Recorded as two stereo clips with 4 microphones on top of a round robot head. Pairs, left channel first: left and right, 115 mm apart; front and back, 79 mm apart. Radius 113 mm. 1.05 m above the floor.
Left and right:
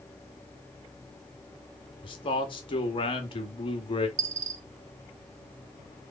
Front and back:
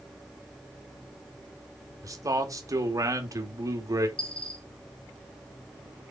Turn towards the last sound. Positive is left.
turn(degrees=-80)